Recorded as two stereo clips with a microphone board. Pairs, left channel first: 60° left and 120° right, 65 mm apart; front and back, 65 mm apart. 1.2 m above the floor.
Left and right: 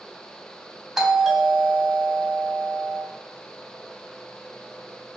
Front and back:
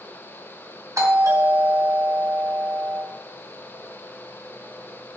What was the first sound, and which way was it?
A doorbell, 150° left.